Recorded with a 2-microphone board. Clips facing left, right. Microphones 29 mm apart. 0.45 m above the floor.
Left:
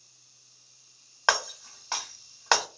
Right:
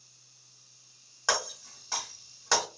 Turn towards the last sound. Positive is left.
turn(degrees=50)  # may be behind; listen again after turning